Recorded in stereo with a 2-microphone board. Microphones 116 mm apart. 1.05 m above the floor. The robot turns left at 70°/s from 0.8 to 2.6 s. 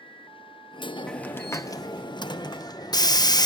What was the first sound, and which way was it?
A hiss, 170° left.